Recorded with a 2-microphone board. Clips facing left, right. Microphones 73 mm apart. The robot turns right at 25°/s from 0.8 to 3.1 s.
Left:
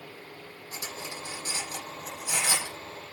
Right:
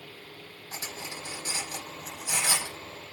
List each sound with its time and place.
0.7 s cutlery clinking: 30° right (ahead or behind), 5.5 m; by 2.8 s 20° left (ahead or behind), 5.5 m